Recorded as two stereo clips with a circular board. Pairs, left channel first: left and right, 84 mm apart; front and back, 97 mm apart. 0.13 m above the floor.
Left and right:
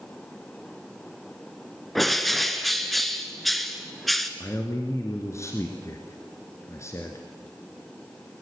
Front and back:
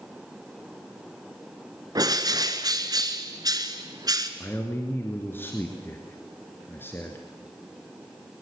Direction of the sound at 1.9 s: 175° left.